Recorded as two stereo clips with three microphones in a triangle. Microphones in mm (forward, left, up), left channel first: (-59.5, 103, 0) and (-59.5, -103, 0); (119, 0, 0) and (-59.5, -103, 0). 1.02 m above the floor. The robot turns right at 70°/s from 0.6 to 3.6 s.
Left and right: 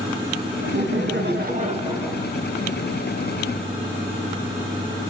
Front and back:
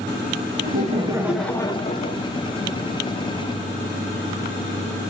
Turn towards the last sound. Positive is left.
turn(degrees=95)